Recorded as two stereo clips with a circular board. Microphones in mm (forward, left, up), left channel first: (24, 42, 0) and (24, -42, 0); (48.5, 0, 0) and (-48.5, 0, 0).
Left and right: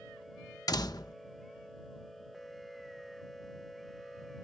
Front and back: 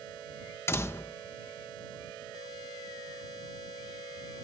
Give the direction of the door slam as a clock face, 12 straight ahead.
10 o'clock.